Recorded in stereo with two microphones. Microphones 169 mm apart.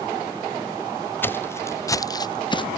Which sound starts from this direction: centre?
Footsteps, at 1.2 s.